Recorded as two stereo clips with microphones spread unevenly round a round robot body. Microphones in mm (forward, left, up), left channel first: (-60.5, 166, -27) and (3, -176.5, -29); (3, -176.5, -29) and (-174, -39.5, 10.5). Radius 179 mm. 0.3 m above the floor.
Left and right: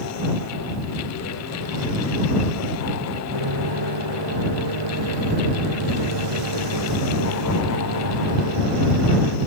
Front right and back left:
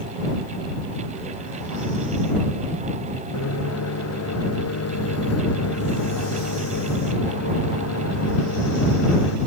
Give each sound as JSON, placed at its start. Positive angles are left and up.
{"t": 3.3, "sound": "a microwave", "azimuth_deg": -50}